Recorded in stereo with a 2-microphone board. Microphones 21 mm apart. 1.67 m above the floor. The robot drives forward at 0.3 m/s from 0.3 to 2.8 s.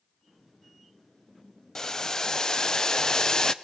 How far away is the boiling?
About 0.6 m.